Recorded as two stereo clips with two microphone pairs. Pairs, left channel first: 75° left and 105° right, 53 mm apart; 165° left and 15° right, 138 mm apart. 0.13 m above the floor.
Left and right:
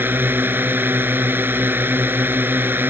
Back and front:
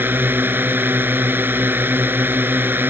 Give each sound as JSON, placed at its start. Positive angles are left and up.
{"t": 0.0, "sound": "a drone", "azimuth_deg": -85}